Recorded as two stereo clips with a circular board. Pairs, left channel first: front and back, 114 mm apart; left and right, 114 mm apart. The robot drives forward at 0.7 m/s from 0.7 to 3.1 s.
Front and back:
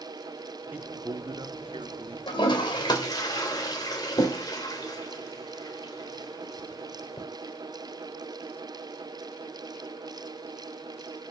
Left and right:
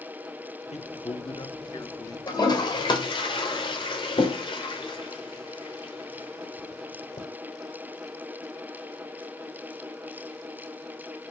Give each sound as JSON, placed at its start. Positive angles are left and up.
{"t": 0.7, "sound": "a man speaking", "azimuth_deg": 105, "distance_m": 0.8}
{"t": 2.3, "sound": "a toilet flushing", "azimuth_deg": 40, "distance_m": 2.5}